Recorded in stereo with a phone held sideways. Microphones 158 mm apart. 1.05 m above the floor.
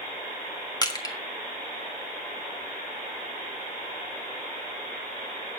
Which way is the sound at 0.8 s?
25° left (ahead or behind).